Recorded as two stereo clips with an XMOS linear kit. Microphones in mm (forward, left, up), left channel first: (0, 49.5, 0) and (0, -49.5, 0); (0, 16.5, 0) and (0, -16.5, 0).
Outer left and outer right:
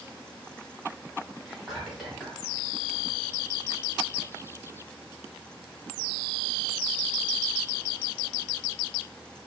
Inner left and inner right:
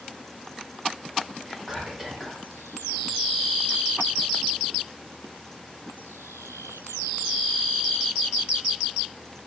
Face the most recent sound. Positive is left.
turn(degrees=0)  # may be behind; listen again after turning